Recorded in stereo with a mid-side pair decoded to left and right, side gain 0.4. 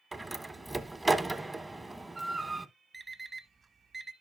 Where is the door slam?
15° right, 1.0 m.